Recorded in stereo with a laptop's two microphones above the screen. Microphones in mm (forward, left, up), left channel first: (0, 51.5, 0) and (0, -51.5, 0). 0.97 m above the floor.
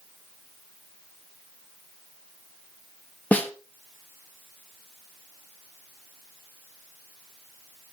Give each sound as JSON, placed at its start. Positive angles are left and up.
{"t": 3.3, "sound": "a snare drum", "side_deg": 15, "distance_m": 1.0}